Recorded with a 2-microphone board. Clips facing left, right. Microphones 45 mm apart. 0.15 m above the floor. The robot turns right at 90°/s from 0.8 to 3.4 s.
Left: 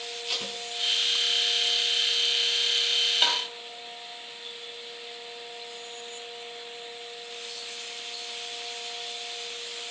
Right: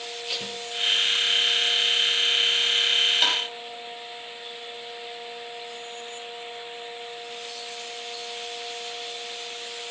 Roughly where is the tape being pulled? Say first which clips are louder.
Even; centre.